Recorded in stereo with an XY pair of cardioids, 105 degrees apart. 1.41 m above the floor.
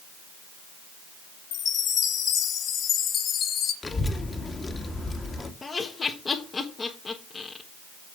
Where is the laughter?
30° left, 1.4 m.